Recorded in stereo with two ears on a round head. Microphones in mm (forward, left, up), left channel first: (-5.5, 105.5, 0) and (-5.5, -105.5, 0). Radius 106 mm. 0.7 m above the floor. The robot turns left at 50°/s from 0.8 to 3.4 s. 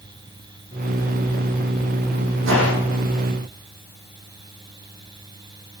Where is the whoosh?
55° right (ahead or behind), 10 m; by 2.7 s 70° right (ahead or behind), 10 m.